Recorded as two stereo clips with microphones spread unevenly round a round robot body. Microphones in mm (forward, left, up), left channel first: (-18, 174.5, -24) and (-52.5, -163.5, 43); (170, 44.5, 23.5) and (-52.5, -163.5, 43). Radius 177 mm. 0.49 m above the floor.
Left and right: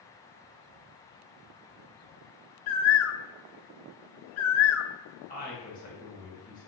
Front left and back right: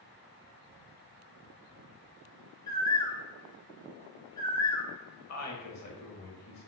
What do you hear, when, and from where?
2.7 s a bird: 120° left, 0.6 m
5.3 s a woman speaking: 25° left, 2.5 m